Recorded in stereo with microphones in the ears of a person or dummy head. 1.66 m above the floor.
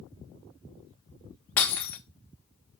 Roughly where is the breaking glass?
Centre.